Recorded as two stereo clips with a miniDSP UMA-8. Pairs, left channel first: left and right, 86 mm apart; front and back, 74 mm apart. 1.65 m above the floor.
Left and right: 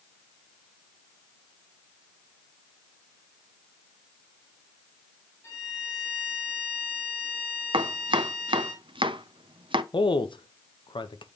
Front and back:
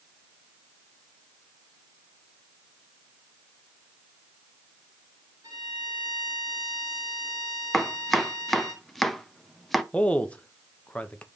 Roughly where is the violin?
Behind left.